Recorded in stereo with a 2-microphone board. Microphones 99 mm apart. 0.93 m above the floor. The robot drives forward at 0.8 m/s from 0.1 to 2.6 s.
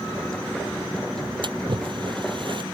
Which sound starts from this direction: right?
A splash, at 1.4 s.